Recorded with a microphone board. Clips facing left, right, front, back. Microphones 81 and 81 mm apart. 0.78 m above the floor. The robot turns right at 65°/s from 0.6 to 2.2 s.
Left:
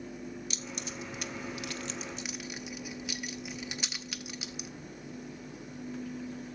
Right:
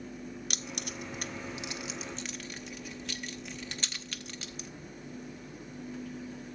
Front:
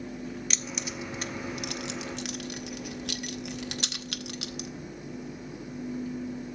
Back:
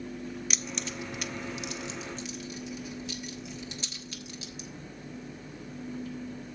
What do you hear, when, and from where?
0.5 s keys jangling: 95° right, 0.8 m; by 4.7 s 10° left, 0.8 m